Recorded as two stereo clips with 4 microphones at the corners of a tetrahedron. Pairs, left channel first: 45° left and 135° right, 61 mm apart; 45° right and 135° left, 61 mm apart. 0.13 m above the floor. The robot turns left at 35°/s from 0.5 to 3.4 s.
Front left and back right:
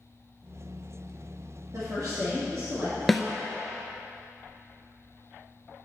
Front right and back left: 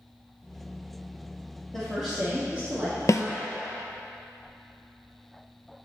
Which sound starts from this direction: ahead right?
A snare drum, at 3.1 s.